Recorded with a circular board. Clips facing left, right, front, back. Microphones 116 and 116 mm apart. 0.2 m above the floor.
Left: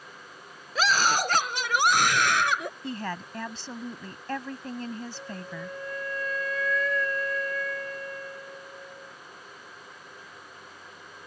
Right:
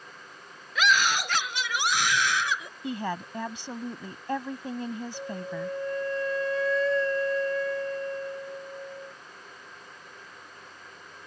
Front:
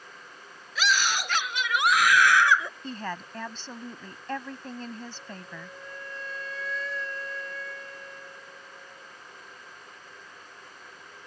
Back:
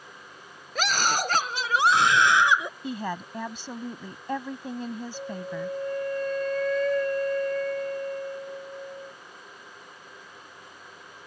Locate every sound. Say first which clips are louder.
0.8 s a scream: left 1 dB, back 1 dB; 145° left; by 2.7 s 110° left
2.8 s a woman speaking: right 2 dB, back 3 dB; 130° right
5.1 s a flute: right 4 dB, back 10 dB; 150° right